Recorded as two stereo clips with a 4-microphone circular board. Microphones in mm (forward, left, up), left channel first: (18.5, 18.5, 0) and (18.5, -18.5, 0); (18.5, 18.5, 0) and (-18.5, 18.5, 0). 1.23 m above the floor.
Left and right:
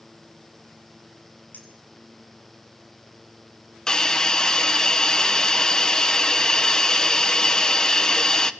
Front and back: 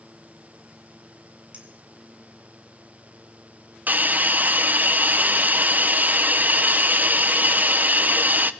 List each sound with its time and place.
1.5 s a clink: 125° left, 4 m
3.9 s a hiss: 155° left, 0.8 m